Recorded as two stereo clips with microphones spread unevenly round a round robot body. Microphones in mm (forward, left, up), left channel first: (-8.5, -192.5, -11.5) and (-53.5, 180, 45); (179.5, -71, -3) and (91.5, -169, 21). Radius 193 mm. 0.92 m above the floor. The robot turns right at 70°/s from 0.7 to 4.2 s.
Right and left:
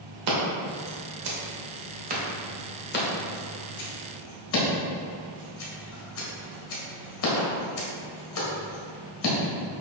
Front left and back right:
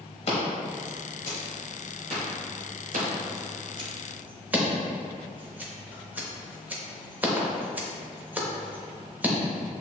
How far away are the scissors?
About 1.1 m.